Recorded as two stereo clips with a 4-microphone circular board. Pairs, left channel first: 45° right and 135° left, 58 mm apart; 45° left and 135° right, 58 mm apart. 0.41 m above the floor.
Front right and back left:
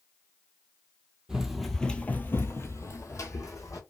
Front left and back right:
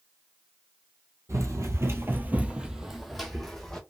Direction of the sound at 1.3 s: 150° right.